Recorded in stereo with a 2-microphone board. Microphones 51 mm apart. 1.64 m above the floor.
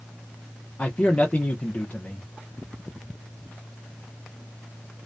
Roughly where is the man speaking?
Left.